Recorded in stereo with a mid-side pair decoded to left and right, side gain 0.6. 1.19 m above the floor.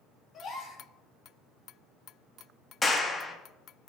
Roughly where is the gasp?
Ahead left.